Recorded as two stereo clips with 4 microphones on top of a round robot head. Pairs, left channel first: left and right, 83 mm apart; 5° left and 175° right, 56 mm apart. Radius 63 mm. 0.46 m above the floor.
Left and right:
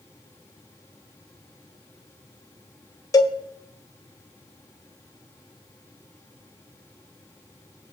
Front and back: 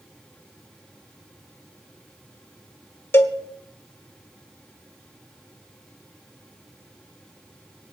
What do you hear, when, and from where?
3.1 s a cowbell: 45° left, 1.4 m